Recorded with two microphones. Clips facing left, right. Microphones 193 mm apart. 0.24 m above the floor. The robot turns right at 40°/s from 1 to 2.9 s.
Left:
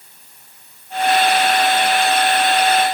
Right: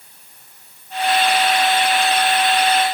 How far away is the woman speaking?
I don't hear a woman speaking.